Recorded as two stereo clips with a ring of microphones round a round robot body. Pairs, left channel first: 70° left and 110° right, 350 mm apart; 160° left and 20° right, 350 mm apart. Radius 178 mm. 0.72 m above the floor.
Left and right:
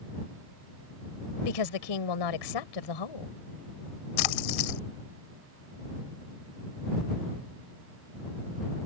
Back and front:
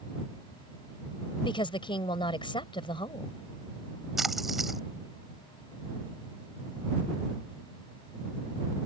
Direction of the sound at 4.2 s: 65° left.